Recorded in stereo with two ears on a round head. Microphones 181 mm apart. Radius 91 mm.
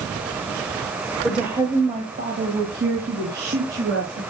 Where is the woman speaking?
Centre (ahead or behind), 1.2 m; by 4.2 s 60° right (ahead or behind), 4.5 m.